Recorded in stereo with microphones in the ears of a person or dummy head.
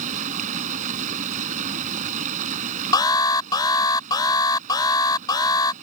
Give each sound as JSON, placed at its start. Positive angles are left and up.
{"t": 0.0, "sound": "running water", "side_deg": -45}
{"t": 2.9, "sound": "an alarm", "side_deg": 25}